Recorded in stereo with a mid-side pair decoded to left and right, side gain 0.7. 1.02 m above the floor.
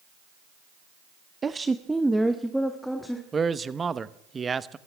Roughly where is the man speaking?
Ahead.